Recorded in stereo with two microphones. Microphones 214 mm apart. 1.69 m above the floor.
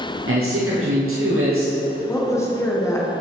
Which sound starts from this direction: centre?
A woman speaking, at 2.1 s.